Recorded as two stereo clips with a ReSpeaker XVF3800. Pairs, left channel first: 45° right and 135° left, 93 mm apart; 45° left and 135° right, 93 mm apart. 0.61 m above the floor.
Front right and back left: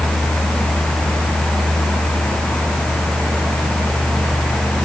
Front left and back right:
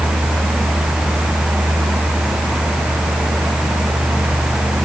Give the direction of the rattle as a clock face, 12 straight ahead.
No rattle in this recording.